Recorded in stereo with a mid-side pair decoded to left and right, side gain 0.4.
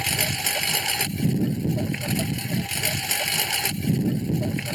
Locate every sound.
0.0 s a lawn mower: 10° right